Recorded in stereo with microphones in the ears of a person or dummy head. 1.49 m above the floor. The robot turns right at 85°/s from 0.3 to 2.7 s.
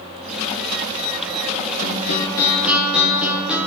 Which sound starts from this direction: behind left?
A guitar, at 1.8 s.